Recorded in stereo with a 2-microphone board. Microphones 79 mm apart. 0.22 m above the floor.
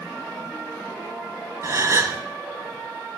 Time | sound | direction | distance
1.6 | a gasp | 40° right (ahead or behind) | 0.6 m